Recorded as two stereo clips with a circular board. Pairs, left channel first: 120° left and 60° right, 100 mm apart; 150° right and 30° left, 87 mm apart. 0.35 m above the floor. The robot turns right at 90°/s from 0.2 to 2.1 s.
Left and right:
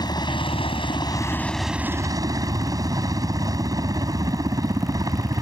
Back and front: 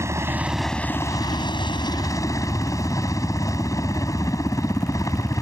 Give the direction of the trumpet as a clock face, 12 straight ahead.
No trumpet in this recording.